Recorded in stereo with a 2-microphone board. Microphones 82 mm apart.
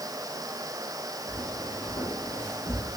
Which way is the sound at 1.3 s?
75° left (ahead or behind).